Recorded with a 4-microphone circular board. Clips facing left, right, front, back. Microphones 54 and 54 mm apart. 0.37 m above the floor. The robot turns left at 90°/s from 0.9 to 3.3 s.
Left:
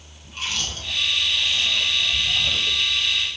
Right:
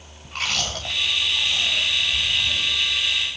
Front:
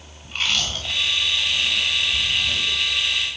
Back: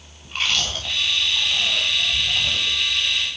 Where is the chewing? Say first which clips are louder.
Right 3 dB, back 1 dB; 95° right, 7.5 m; by 2.8 s 95° left, 7.5 m.